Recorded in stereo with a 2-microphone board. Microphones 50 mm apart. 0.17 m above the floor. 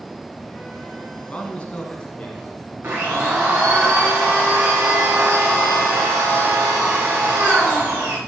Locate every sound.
1.3 s a man speaking: 20° left (ahead or behind), 1.7 m; by 3.8 s 25° left (ahead or behind), 3.5 m
2.8 s a blender: 40° right (ahead or behind), 4.5 m